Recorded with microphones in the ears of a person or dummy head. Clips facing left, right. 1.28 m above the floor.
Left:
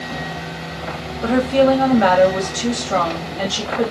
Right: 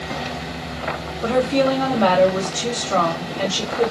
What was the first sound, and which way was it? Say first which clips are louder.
A woman speaking: left 3 dB; 20° left (ahead or behind).